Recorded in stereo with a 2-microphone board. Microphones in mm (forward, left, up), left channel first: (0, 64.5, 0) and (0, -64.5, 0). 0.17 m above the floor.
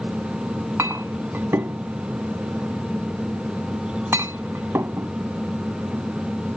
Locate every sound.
0.8 s a clink: 20° right (ahead or behind)